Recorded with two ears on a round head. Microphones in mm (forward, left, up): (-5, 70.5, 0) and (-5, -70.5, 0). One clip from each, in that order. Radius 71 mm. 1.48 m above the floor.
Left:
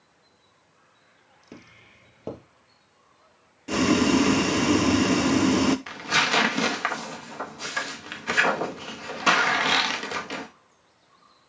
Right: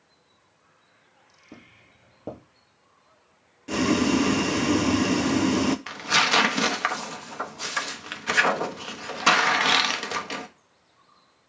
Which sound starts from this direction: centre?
Boiling, at 3.7 s.